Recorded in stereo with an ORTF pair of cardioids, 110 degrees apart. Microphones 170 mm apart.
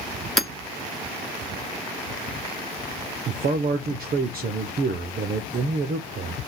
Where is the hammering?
Straight ahead, 1.8 m.